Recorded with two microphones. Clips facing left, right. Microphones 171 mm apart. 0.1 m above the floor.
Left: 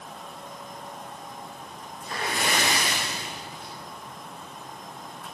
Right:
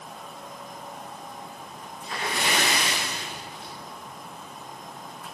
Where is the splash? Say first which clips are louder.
Even; 50° left (ahead or behind), 5 m.